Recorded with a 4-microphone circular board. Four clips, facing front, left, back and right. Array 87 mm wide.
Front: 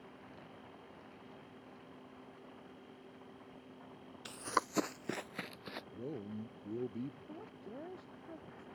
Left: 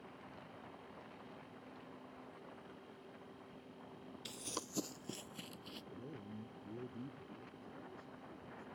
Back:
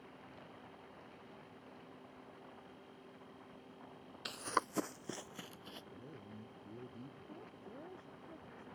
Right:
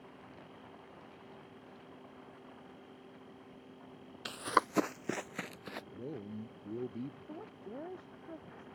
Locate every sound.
4.2 s running footsteps: 115° right; by 5.8 s 60° right
5.9 s a man speaking: 40° right
7.3 s a woman speaking: 70° right